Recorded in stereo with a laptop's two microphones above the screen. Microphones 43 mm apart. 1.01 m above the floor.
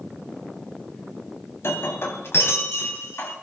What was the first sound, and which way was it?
Breaking glass, 70° left (ahead or behind).